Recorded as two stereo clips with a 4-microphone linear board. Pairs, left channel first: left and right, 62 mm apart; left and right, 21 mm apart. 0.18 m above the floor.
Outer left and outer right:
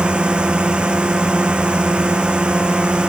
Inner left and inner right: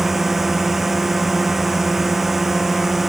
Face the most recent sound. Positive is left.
turn(degrees=-15)  # may be behind; listen again after turning